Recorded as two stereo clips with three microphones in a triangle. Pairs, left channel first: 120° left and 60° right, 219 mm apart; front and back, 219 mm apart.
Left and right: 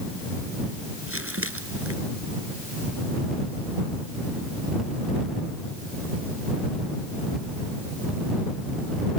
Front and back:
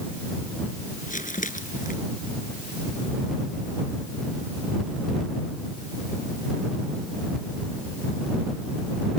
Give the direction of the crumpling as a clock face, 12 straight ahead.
2 o'clock.